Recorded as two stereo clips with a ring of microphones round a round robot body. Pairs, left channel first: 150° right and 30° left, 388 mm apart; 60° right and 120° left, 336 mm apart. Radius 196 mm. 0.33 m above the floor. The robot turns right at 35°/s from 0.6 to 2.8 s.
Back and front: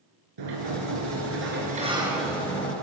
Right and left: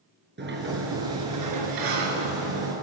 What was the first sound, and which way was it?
A sliding door, 60° left.